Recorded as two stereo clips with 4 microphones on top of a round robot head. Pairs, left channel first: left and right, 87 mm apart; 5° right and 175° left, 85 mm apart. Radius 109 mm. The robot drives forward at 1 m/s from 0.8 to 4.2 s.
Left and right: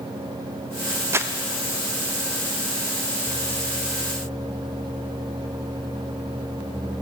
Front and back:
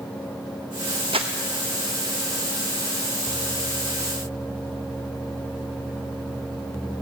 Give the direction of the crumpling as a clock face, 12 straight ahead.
5 o'clock.